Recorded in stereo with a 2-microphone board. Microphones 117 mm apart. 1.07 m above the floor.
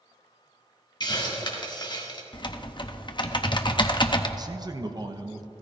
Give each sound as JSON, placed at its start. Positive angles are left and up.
{"t": 1.0, "sound": "a hiss", "side_deg": 40, "distance_m": 1.7}
{"t": 2.3, "sound": "typing on a keyboard", "side_deg": 40, "distance_m": 0.7}
{"t": 4.4, "sound": "a man speaking", "side_deg": -35, "distance_m": 0.9}